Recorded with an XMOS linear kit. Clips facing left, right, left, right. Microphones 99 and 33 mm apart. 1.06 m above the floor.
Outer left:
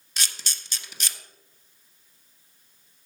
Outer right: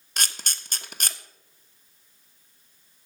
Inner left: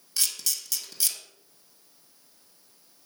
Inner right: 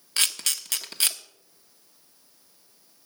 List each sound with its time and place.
0.2 s a camera shutter: 50° right (ahead or behind), 1.0 m